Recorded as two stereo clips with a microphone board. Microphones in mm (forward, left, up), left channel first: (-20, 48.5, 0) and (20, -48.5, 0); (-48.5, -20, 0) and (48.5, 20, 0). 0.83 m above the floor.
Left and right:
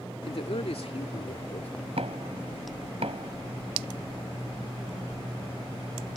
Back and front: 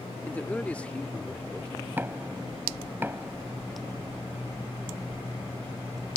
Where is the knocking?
50° right.